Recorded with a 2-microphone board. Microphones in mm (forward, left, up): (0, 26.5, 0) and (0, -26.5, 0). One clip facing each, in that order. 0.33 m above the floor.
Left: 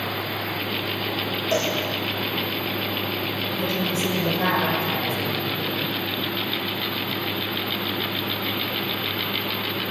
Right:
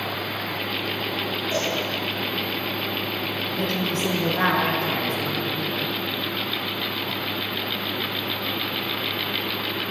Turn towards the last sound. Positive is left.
turn(degrees=-50)  # may be behind; listen again after turning